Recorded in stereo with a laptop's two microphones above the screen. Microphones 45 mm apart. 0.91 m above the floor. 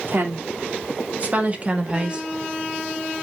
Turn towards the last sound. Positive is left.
turn(degrees=-25)  # may be behind; listen again after turning